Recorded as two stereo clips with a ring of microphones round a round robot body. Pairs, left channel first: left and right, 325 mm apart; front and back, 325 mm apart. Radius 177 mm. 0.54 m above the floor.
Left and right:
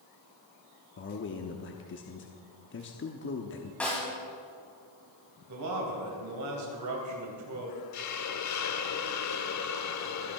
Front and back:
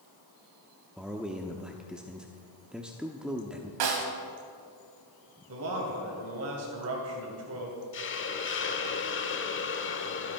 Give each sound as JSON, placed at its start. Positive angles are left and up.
{"t": 1.0, "sound": "a man speaking", "azimuth_deg": 95, "distance_m": 0.9}
{"t": 3.8, "sound": "a snare drum", "azimuth_deg": 175, "distance_m": 2.0}
{"t": 5.5, "sound": "a man speaking", "azimuth_deg": -130, "distance_m": 3.0}
{"t": 7.9, "sound": "a hiss", "azimuth_deg": 55, "distance_m": 1.1}